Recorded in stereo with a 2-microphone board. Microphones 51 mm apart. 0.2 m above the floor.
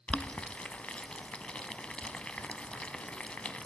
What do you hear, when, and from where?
0.1 s boiling: 20° left (ahead or behind), 0.6 m